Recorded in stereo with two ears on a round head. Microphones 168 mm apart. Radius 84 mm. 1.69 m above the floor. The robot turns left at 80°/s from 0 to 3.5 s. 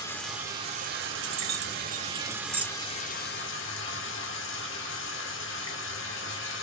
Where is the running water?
20° left, 2 m; by 6.6 s 100° left, 2 m.